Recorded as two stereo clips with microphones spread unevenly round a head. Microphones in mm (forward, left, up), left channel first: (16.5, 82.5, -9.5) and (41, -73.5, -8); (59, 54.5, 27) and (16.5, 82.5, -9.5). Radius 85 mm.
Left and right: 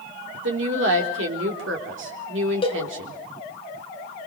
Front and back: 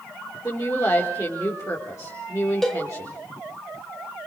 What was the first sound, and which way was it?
A woman speaking, 105° right.